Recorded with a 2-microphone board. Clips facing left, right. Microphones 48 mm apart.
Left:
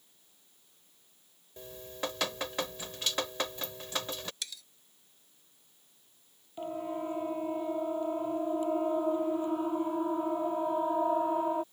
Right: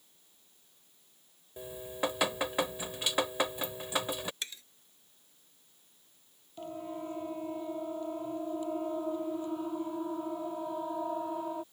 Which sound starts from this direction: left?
A siren, at 6.6 s.